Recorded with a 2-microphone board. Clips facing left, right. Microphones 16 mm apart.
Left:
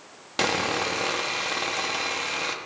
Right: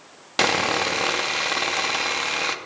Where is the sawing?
15° right (ahead or behind), 0.7 m.